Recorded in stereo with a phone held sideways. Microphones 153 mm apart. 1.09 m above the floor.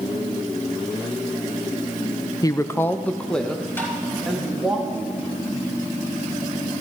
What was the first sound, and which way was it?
A woman speaking, 25° left (ahead or behind).